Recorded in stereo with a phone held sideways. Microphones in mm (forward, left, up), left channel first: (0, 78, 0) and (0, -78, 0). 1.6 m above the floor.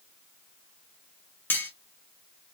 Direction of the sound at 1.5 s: 10° left (ahead or behind).